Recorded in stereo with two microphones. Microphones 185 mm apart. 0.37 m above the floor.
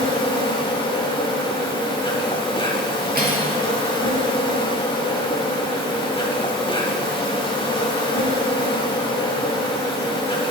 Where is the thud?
I don't hear a thud.